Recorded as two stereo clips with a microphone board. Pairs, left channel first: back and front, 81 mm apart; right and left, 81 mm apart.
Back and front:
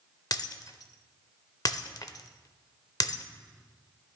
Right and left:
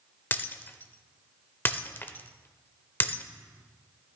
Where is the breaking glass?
150° right, 0.6 m.